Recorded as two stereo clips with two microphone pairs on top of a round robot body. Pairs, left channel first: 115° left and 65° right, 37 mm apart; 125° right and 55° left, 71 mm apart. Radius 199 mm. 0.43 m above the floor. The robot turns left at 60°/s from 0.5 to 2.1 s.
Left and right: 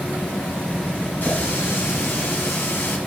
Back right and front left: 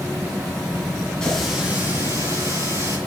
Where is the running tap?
155° left, 3 m; by 3.0 s 100° left, 3 m.